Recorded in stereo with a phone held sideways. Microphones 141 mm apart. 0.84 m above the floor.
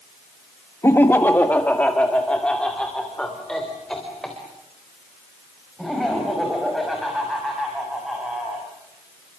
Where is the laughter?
20° left (ahead or behind), 1.1 m; by 8.6 s centre (ahead or behind), 7.5 m.